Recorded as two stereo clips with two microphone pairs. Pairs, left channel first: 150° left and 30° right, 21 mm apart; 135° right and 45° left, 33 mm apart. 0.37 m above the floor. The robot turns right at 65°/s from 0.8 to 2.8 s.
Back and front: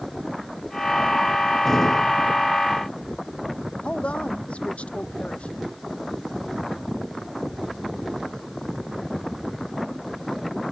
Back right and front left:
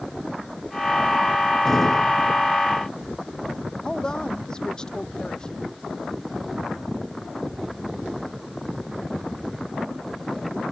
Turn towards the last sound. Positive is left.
turn(degrees=155)